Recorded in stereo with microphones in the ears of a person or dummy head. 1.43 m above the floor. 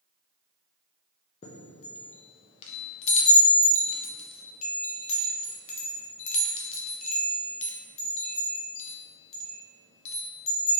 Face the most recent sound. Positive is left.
turn(degrees=35)  # may be behind; listen again after turning